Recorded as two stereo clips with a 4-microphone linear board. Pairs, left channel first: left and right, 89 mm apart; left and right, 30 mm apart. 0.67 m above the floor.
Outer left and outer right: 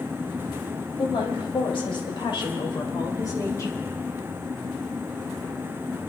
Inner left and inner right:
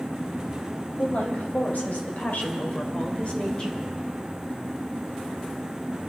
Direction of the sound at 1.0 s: 75° left (ahead or behind).